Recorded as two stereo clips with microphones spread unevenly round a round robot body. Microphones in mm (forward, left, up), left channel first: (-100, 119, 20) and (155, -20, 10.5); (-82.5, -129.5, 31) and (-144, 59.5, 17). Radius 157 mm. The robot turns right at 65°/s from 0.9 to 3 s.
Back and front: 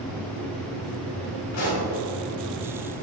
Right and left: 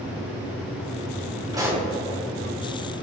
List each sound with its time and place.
1.5 s a pop: 175° left, 2 m; by 1.9 s 165° right, 2 m